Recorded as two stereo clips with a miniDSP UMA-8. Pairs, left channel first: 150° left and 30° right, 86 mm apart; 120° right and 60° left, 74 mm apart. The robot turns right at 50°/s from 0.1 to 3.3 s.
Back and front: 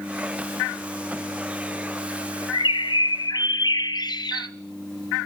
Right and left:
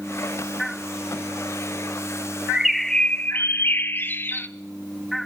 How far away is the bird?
About 0.6 m.